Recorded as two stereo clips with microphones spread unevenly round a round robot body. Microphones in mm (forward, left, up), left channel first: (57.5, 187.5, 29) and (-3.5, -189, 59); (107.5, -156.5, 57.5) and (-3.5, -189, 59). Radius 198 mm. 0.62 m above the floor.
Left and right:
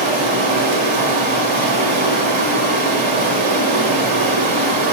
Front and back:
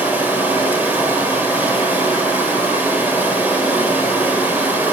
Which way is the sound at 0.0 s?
90° right.